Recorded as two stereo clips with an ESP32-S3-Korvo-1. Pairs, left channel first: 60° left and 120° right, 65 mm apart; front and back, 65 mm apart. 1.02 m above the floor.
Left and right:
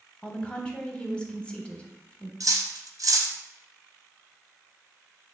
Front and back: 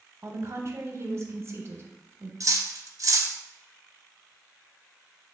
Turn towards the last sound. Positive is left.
turn(degrees=-145)